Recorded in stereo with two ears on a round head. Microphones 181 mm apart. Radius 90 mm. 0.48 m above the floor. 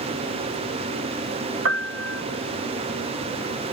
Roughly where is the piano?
Right.